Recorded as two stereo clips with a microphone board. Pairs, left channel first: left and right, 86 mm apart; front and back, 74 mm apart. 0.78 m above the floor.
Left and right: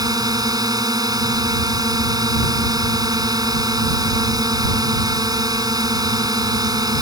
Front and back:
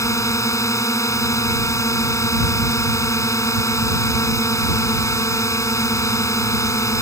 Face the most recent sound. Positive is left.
turn(degrees=-50)